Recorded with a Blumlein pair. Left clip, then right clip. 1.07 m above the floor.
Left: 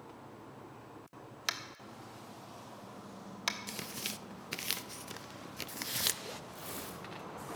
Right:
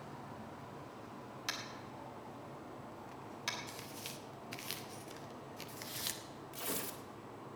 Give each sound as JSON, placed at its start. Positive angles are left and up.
{"t": 1.5, "sound": "tapping", "azimuth_deg": 20, "distance_m": 1.4}
{"t": 3.7, "sound": "tearing paper", "azimuth_deg": 65, "distance_m": 0.5}
{"t": 6.5, "sound": "tearing paper", "azimuth_deg": -20, "distance_m": 1.8}